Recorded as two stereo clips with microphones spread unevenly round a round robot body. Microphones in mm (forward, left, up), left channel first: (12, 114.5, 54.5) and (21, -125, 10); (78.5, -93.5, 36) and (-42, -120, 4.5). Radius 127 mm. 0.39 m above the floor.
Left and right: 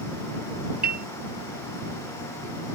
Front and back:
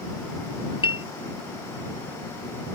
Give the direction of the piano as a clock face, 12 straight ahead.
1 o'clock.